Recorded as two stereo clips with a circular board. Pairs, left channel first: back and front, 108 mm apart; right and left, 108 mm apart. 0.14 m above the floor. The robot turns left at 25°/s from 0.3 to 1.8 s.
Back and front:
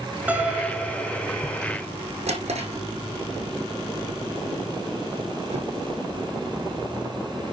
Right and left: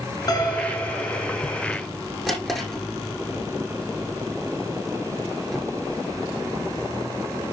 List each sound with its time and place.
0.3 s a piano: 70° right, 1.7 m; by 1.3 s 95° right, 1.7 m
2.3 s a drawer: 5° right, 4.5 m